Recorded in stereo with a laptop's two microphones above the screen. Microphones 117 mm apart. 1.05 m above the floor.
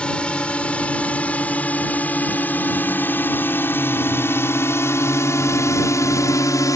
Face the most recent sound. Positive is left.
turn(degrees=30)  # may be behind; listen again after turning